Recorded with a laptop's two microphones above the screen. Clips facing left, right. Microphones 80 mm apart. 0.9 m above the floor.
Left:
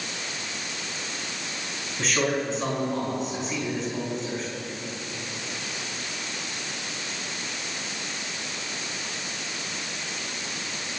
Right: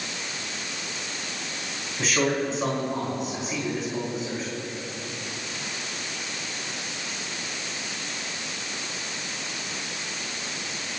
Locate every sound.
2.0 s a man speaking: 5° right (ahead or behind), 4.5 m